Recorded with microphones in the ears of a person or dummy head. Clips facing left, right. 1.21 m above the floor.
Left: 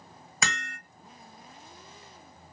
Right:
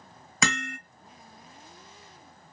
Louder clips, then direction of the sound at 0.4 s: Right 6 dB; 65° right (ahead or behind).